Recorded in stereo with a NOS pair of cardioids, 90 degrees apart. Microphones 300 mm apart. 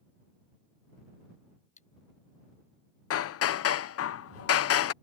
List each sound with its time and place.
1.8 s cutlery clinking: 25° left
3.1 s hammering: 55° left